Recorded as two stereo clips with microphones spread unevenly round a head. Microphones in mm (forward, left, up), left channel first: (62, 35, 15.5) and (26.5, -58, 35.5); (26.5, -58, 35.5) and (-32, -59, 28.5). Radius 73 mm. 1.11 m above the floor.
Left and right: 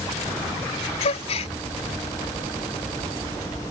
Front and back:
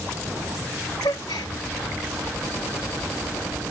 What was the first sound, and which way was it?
A gasp, 45° left.